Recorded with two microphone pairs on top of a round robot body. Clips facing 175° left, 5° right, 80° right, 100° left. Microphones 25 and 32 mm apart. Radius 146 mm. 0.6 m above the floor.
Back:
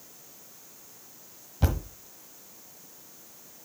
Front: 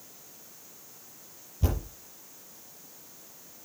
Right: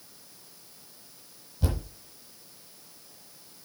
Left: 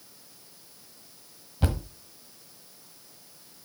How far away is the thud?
About 1.2 m.